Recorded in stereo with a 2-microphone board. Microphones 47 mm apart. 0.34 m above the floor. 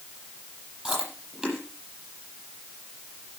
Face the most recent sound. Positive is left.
turn(degrees=-10)  # may be behind; listen again after turning